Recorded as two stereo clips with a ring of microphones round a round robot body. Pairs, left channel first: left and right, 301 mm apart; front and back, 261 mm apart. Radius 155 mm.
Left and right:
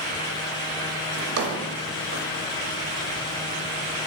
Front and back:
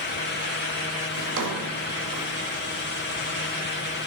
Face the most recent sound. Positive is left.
turn(degrees=-135)